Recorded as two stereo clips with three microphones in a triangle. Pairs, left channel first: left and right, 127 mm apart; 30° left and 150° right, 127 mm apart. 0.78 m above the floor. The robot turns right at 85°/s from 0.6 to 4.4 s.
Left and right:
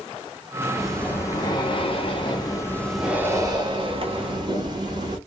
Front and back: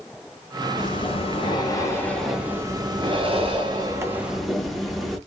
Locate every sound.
0.8 s breathing: 5° right, 0.8 m; by 5.2 s 60° right, 0.8 m